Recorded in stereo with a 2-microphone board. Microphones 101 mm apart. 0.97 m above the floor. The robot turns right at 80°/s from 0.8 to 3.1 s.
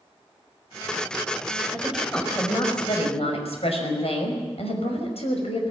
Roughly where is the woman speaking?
Ahead right.